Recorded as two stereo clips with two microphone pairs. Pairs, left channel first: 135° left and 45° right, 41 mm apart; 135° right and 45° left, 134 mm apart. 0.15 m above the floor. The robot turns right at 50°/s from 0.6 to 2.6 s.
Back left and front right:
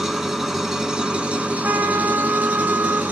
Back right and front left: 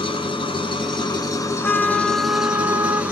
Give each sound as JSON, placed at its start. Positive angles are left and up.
{"t": 0.0, "sound": "an engine running", "azimuth_deg": -130, "distance_m": 1.5}
{"t": 1.6, "sound": "a trumpet", "azimuth_deg": -60, "distance_m": 0.8}